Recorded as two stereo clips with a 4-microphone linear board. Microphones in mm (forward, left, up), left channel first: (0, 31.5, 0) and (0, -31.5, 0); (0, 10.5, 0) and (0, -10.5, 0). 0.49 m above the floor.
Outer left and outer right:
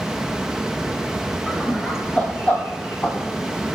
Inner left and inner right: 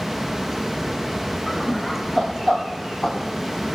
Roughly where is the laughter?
Centre.